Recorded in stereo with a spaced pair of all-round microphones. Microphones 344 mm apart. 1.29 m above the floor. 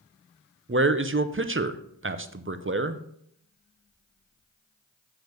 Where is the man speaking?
35° right (ahead or behind), 0.6 m.